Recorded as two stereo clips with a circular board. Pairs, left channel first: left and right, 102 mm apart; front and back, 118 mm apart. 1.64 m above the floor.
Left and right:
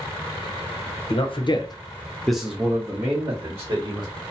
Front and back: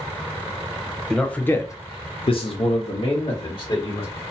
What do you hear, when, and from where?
1.1 s a man speaking: 85° left, 0.7 m; by 4.2 s 45° right, 1.3 m